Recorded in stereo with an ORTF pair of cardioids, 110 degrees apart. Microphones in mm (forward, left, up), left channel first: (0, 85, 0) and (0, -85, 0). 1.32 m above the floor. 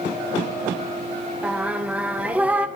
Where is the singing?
10° right, 0.5 m.